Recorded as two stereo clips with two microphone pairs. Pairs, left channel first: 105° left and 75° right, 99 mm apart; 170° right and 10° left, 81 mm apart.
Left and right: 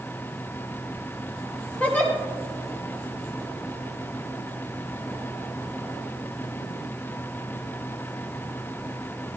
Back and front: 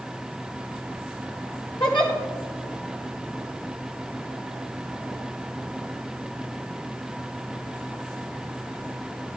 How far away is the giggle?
About 2 m.